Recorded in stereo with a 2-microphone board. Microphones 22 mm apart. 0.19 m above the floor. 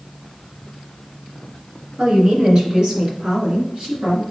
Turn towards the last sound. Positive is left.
turn(degrees=-45)  # may be behind; listen again after turning